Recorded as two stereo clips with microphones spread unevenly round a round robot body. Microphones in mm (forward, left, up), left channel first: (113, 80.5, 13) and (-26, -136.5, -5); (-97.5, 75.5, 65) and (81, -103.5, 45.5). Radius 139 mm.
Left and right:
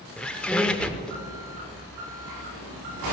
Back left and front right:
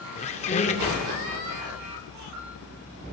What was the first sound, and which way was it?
A squeak, 130° left.